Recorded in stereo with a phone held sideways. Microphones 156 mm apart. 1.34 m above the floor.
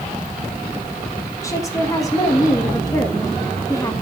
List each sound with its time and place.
1.4 s a woman speaking: 20° left (ahead or behind), 2.0 m